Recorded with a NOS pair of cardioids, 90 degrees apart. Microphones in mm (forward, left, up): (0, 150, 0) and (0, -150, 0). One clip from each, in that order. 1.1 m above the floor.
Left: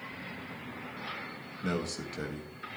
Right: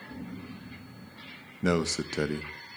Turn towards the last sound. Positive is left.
turn(degrees=-50)